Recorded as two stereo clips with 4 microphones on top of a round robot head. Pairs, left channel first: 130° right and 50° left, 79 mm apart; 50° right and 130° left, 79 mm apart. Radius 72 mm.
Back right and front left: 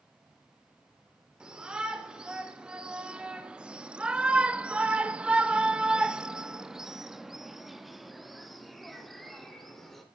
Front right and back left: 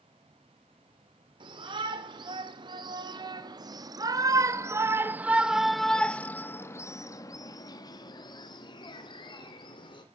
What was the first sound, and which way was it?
A shout, 130° left.